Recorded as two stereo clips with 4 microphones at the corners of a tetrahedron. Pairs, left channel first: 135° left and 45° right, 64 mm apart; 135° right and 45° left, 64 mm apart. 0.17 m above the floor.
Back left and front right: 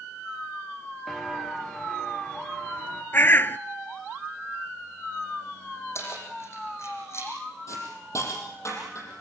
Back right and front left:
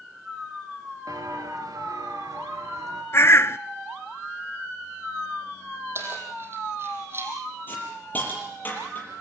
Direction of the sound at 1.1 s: 45° left.